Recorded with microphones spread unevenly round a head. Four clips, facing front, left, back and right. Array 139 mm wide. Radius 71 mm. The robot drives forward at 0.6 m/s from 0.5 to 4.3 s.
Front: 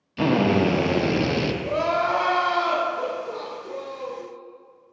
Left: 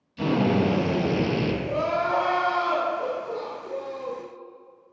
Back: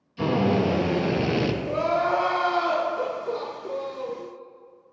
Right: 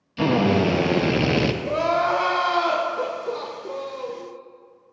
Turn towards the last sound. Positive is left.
turn(degrees=-130)